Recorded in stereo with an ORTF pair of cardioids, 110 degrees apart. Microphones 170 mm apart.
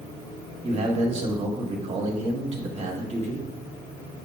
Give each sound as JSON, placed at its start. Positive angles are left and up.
{"t": 0.6, "sound": "a man speaking", "azimuth_deg": -40, "distance_m": 1.7}